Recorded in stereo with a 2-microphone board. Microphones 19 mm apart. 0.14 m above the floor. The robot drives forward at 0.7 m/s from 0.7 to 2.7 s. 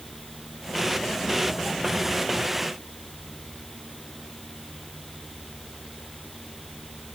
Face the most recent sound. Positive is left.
No sound to turn to.